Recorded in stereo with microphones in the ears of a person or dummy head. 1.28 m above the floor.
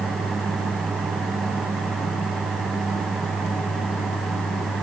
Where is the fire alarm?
No fire alarm in this recording.